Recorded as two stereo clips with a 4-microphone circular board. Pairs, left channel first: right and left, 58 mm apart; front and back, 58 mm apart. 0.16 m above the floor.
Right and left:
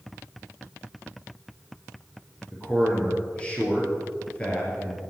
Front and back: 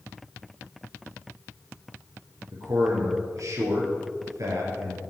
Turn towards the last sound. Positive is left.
turn(degrees=-160)